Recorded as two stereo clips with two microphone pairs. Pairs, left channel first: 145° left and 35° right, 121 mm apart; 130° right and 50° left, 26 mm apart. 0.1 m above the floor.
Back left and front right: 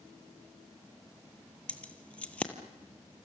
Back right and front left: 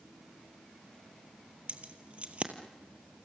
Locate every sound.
1.7 s keys jangling: 70° left, 1.8 m